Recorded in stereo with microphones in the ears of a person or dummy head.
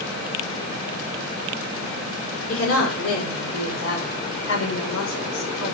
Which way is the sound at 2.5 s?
85° left.